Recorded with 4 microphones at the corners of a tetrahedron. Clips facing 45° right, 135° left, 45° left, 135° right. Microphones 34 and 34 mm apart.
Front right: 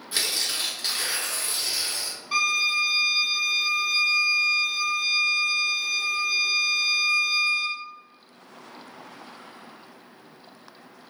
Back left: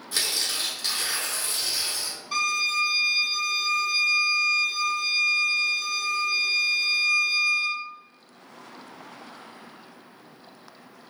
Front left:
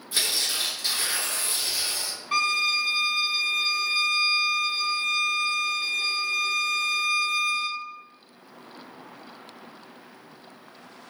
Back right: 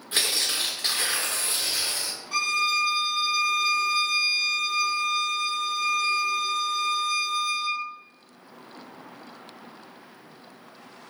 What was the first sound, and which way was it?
Tearing paper, 110° right.